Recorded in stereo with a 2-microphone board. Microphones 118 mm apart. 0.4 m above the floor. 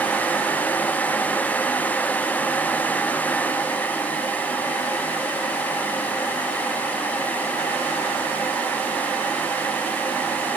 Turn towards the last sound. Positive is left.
No sound to turn to.